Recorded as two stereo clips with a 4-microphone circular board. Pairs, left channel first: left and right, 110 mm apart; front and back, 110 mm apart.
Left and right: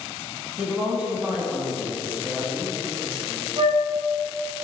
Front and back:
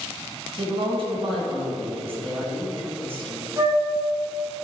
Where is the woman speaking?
170° right, 2.5 m.